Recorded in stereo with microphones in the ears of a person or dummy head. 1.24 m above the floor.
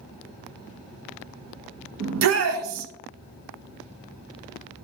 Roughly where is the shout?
Right.